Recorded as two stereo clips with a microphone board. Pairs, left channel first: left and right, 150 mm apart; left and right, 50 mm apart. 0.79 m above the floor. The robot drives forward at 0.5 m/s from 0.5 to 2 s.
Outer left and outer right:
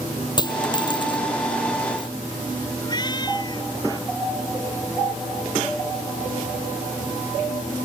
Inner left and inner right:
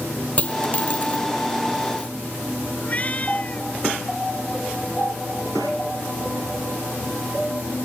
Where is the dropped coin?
30° left (ahead or behind); by 2.1 s 35° left (ahead or behind).